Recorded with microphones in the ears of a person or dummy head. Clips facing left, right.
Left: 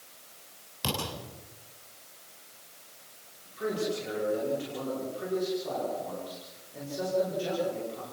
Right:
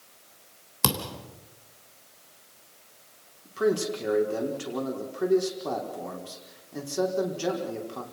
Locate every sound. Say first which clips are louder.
0.8 s a thud: right 3 dB; 60° right (ahead or behind), 3 m
3.5 s a man speaking: right 6 dB; 65° right (ahead or behind), 5 m